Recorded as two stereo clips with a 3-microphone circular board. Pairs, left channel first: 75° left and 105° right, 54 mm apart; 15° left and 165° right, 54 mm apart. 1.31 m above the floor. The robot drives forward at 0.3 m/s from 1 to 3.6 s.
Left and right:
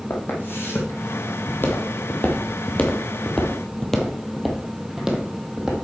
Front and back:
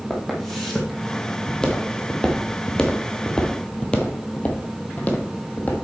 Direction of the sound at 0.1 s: 105° left.